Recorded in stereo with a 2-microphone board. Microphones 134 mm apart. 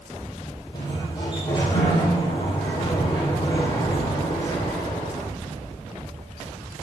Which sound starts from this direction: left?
A sliding door, at 0.7 s.